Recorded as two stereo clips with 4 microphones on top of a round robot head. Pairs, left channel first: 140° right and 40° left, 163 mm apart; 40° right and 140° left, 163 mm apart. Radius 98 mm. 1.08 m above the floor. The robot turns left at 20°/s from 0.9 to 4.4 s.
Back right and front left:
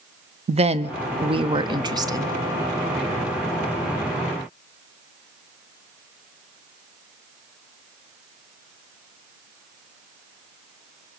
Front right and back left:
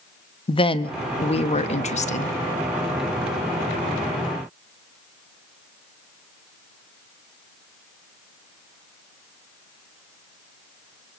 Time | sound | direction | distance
0.5 | a woman speaking | 5° left | 0.8 m